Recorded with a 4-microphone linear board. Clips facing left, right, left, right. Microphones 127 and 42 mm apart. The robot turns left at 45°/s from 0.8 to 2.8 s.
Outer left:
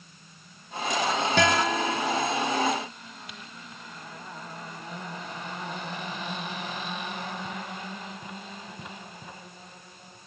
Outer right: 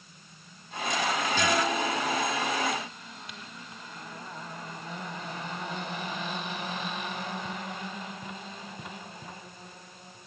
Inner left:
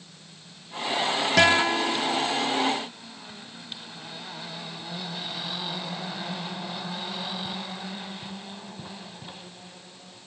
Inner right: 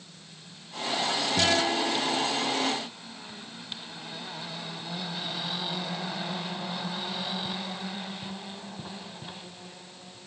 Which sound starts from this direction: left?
A guitar, at 1.4 s.